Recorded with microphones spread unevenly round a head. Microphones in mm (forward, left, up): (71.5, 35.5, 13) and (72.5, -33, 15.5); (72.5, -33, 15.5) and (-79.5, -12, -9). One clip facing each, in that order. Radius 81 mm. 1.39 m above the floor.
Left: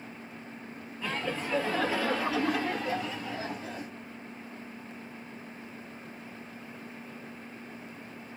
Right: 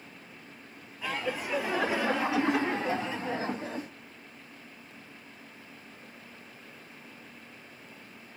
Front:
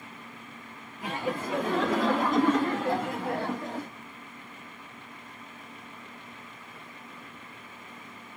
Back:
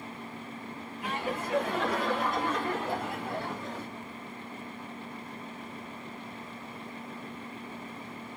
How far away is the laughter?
About 2.5 m.